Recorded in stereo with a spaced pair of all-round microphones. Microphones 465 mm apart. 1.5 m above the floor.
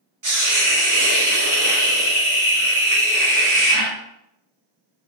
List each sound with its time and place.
0.2 s a hiss: 40° right (ahead or behind), 1.0 m